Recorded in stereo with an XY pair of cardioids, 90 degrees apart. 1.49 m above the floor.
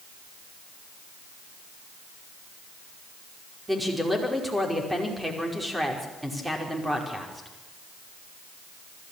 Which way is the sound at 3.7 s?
10° right.